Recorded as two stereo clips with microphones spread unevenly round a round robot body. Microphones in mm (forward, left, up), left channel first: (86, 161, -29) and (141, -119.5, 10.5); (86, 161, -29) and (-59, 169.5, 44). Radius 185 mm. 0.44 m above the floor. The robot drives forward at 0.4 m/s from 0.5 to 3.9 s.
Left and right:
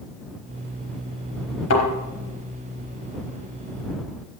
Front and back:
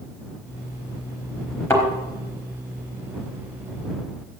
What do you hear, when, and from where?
1.7 s a thud: 70° left, 4.5 m